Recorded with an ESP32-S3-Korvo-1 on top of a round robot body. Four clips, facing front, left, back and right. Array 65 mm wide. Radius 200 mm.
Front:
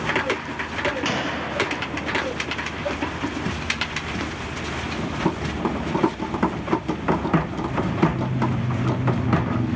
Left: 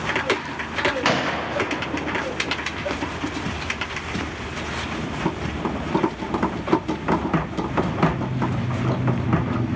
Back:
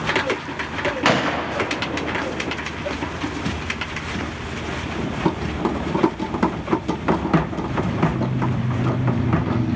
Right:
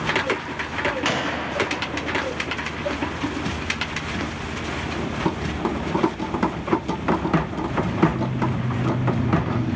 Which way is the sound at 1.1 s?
160° left.